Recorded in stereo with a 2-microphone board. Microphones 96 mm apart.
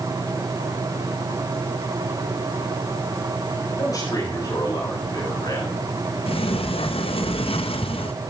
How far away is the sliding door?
About 1.1 m.